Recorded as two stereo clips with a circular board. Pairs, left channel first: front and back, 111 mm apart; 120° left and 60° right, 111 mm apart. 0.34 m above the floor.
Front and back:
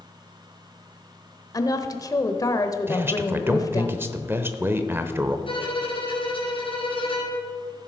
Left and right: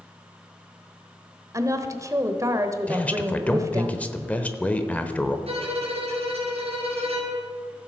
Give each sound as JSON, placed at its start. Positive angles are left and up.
{"t": 1.5, "sound": "a woman speaking", "azimuth_deg": -25, "distance_m": 1.1}
{"t": 2.9, "sound": "a man speaking", "azimuth_deg": 170, "distance_m": 0.9}
{"t": 5.5, "sound": "a violin", "azimuth_deg": -35, "distance_m": 3.5}